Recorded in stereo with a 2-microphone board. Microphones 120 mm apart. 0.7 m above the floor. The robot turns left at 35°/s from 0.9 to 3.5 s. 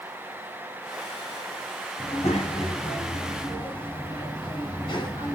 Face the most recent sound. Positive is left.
turn(degrees=45)